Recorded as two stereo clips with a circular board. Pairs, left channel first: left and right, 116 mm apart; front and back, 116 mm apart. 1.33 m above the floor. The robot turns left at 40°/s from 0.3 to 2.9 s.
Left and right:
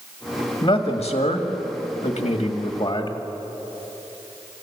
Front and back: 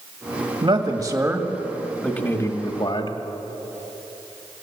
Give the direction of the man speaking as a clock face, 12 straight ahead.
8 o'clock.